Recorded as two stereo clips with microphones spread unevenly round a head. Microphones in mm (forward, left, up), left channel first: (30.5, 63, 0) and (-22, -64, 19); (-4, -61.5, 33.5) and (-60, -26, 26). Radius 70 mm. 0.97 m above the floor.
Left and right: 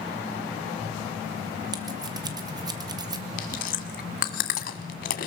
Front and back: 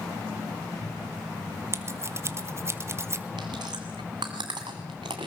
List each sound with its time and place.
1.7 s scissors: straight behind, 1.6 m
3.4 s chewing: 95° left, 1.7 m